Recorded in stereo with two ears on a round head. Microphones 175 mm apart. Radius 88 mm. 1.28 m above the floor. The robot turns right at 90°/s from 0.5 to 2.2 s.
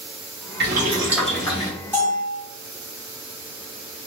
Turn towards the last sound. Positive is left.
turn(degrees=40)  # may be behind; listen again after turning